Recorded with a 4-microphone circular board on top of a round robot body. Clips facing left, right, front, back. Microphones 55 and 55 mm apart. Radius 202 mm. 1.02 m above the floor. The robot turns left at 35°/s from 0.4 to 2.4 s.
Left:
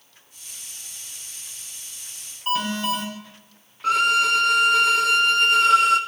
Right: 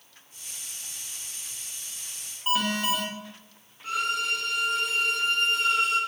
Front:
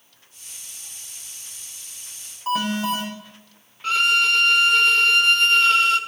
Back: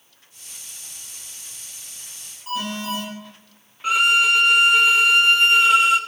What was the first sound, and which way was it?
An alarm, 5° right.